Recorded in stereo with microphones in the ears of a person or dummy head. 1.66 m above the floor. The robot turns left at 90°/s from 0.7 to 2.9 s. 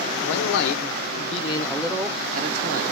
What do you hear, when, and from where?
0.2 s a man speaking: 100° left, 0.7 m; by 2.8 s 90° right, 0.7 m